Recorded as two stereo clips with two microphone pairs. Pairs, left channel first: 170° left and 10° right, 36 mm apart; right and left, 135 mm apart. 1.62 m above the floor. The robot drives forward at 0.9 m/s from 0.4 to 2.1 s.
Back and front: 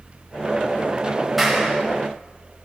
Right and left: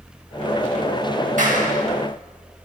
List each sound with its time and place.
1.4 s a clap: 80° left, 6 m; by 1.8 s 85° left, 6 m